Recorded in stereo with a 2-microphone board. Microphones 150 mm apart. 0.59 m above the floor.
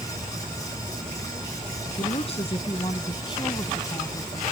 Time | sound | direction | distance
2.0 | a woman speaking | 45° left (ahead or behind) | ?